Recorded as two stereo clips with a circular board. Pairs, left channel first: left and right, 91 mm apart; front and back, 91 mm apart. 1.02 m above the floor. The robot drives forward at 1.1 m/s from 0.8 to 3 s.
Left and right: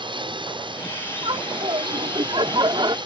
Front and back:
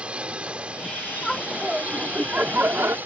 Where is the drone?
100° right; by 3.1 s 110° right.